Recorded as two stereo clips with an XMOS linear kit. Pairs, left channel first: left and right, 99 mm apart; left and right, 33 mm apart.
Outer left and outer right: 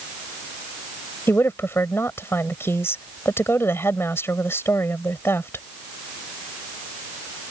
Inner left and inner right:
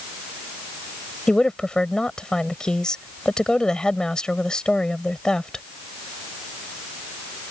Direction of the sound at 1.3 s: 25° left (ahead or behind).